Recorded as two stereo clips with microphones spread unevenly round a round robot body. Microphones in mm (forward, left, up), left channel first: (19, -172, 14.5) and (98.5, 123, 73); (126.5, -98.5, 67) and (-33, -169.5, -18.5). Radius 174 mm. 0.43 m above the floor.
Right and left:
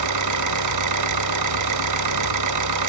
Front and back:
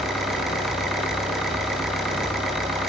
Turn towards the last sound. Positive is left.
turn(degrees=115)